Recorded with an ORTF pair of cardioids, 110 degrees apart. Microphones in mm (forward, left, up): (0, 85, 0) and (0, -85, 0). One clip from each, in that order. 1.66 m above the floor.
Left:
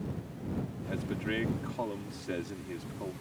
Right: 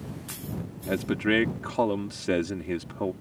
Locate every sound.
0.9 s a man speaking: 60° right